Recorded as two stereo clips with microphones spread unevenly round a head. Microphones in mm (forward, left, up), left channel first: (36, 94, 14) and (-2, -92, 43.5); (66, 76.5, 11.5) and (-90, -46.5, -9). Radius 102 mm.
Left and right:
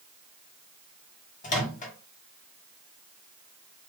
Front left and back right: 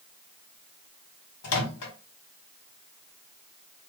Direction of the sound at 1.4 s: 25° left.